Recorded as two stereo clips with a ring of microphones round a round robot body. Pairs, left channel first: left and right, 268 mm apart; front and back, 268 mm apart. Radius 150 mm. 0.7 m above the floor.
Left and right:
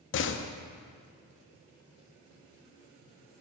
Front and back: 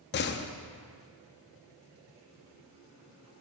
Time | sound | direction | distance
0.1 | a door slam | 50° left | 0.6 m